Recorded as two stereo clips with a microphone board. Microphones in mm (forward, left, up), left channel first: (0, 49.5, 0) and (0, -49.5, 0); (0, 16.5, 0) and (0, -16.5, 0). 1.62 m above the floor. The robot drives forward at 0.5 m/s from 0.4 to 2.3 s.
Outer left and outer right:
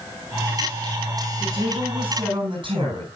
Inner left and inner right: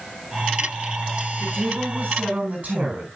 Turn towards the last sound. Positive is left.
turn(degrees=-55)  # may be behind; listen again after turning